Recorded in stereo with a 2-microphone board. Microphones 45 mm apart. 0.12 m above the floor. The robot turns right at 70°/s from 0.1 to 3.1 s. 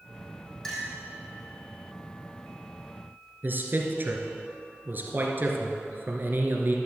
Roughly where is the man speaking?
Right.